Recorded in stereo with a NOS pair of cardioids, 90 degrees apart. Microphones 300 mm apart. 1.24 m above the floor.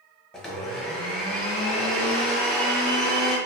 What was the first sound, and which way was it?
A blender, straight ahead.